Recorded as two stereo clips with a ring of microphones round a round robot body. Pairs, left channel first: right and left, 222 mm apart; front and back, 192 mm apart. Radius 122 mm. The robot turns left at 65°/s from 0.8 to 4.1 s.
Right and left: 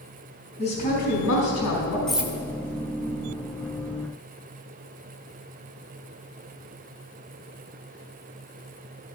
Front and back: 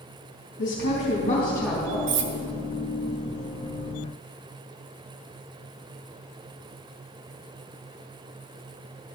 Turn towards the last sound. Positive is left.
turn(degrees=50)